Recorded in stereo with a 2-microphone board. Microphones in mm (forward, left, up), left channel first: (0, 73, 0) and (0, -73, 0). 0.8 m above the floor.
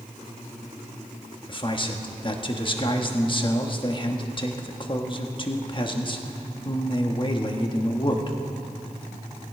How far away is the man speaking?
About 1.3 m.